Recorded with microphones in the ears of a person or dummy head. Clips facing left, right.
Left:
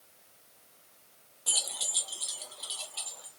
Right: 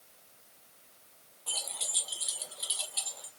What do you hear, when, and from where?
1.5 s keys jangling: 30° left (ahead or behind), 0.5 m; by 3.3 s 25° right (ahead or behind), 1.4 m